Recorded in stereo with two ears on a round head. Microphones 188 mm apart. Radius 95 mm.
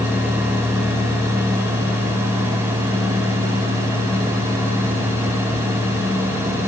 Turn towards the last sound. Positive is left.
No sound to turn to.